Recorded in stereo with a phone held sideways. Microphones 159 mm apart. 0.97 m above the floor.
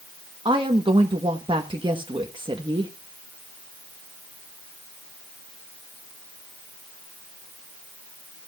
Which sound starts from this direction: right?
A woman speaking, at 0.5 s.